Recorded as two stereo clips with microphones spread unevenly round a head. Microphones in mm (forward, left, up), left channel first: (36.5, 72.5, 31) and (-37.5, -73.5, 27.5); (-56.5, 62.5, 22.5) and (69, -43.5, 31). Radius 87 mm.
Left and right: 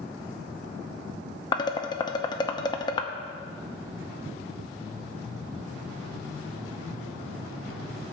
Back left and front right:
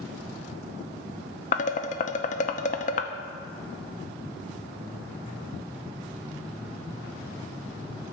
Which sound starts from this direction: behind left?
Dishes clattering, at 1.5 s.